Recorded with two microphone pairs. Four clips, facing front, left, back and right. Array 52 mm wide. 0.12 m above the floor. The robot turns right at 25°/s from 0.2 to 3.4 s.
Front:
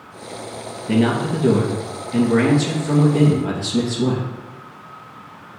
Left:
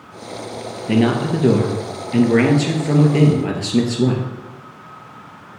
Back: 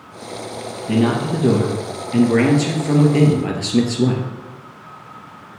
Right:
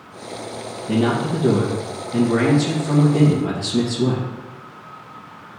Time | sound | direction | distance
0.9 | a man speaking | 70° left | 2 m